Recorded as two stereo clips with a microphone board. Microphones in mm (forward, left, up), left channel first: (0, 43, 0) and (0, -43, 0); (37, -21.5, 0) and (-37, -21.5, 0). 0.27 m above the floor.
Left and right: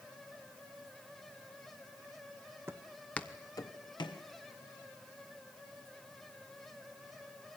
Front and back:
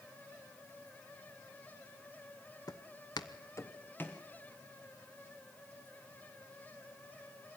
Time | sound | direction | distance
2.7 | footsteps | 35° right | 0.8 m